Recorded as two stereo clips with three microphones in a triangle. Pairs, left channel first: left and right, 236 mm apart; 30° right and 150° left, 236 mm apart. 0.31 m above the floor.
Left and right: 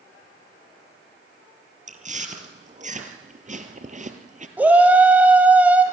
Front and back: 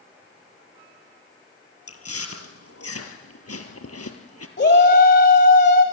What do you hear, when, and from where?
1.9 s chewing: 30° right, 1.6 m
4.6 s a shout: 10° right, 1.6 m